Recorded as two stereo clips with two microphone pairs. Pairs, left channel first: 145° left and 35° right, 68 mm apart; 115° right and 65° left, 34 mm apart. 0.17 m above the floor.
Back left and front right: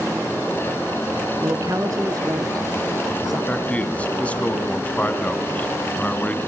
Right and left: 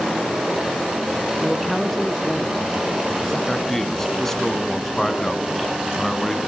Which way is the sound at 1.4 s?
25° right.